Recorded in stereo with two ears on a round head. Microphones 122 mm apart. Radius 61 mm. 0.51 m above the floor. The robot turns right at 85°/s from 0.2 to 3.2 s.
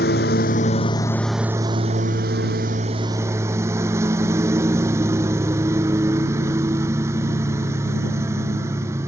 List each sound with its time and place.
0.0 s a lawn mower: 85° left; by 9.1 s 20° right